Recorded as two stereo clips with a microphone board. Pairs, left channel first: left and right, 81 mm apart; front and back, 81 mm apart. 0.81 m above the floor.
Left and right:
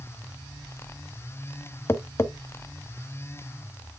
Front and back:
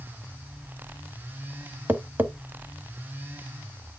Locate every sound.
1.9 s tapping: 125° left, 0.8 m